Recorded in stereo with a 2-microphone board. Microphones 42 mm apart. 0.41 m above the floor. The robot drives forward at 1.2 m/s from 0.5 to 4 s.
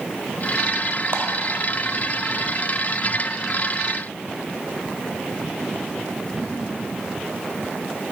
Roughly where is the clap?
Right.